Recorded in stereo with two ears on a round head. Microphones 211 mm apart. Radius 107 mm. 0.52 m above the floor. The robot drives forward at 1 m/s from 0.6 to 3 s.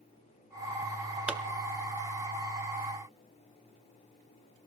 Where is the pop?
5° right (ahead or behind), 0.7 m.